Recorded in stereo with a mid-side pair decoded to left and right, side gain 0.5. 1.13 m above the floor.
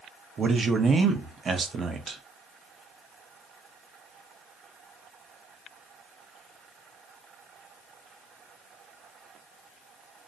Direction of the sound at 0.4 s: 40° right.